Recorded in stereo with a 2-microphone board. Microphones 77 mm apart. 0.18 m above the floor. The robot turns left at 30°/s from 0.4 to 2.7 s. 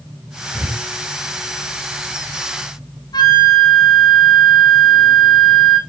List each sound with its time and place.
0.5 s breathing: 35° right (ahead or behind), 0.9 m
3.1 s a flute: 65° left (ahead or behind), 1.3 m